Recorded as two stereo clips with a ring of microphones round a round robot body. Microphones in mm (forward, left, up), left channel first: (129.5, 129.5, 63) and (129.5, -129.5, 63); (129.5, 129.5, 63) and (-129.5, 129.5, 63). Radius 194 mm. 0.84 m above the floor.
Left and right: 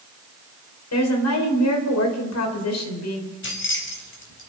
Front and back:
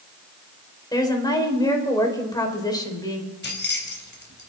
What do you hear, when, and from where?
0.9 s a woman speaking: 75° left, 4 m
3.4 s keys jangling: 50° left, 4 m